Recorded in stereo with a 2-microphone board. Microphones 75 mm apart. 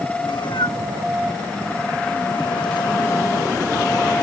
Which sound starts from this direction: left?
A cat meowing, at 0.2 s.